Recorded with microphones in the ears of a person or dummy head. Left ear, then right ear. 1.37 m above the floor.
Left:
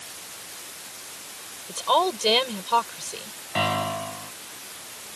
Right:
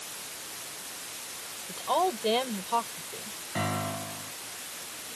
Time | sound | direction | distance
1.7 | a woman speaking | 50° left (ahead or behind) | ?
3.5 | a piano | 55° left (ahead or behind) | ?